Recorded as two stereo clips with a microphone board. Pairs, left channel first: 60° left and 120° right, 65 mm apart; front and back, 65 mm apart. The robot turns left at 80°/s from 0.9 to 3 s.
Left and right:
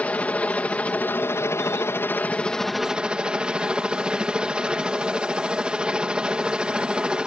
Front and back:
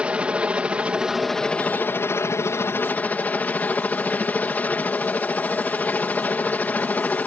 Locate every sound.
0.0 s a helicopter: 115° left; by 7.3 s 50° right